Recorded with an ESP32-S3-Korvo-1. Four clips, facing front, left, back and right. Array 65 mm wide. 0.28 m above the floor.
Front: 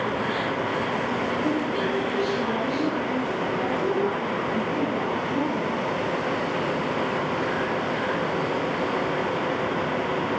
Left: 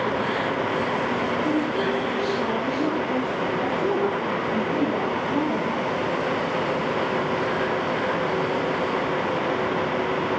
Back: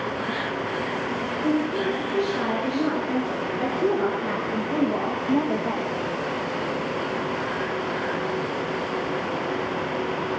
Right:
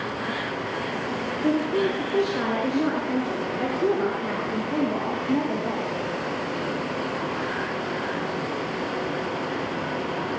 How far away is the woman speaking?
About 5.5 m.